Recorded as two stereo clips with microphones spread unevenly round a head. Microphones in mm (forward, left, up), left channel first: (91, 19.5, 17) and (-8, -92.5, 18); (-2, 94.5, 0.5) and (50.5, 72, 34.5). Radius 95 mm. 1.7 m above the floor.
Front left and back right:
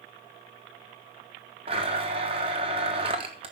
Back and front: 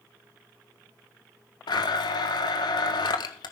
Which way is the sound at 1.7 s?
170° left.